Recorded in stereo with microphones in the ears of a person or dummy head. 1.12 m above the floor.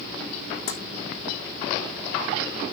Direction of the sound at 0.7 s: 60° left (ahead or behind).